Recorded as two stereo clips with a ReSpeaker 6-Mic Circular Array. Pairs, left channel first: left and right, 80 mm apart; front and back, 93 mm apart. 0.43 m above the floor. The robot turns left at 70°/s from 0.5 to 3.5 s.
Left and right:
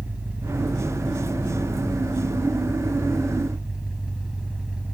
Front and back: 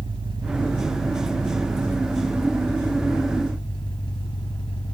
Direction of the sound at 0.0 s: 160° right.